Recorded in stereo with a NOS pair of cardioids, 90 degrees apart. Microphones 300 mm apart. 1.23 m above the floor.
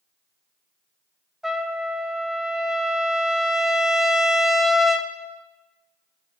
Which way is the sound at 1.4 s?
Straight ahead.